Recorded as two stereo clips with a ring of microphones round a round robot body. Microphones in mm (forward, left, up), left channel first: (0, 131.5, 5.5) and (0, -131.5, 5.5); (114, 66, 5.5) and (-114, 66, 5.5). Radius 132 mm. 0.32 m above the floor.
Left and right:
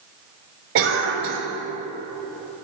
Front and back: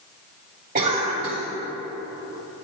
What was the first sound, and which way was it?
A cough, 125° right.